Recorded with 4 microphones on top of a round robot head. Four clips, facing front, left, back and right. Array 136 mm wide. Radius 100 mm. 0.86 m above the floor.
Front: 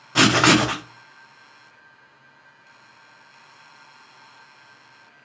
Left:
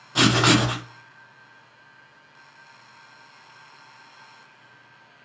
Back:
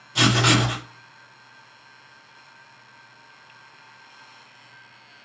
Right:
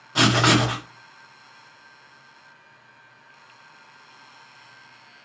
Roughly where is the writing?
Ahead.